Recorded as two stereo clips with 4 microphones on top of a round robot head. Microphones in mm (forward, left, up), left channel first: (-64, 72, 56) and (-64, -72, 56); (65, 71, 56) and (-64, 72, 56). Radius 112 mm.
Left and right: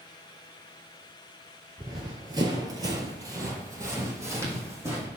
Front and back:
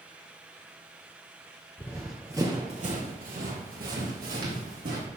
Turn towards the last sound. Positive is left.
turn(degrees=-160)